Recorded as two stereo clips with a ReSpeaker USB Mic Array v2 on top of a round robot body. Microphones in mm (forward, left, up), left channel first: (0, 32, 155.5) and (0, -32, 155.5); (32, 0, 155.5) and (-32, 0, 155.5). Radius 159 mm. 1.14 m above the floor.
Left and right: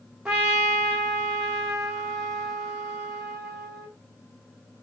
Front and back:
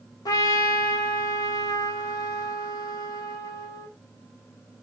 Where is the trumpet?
10° right, 0.7 m.